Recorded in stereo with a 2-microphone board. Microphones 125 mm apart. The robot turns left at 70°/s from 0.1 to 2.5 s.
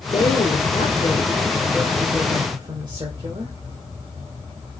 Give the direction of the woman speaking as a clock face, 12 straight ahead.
8 o'clock.